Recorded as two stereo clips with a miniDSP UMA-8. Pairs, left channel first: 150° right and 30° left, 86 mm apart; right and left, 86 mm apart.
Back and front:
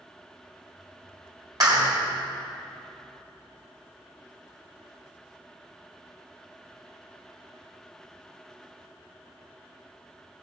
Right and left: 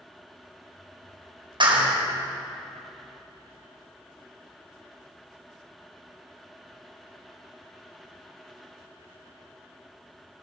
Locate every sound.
1.6 s a clap: 70° left, 4 m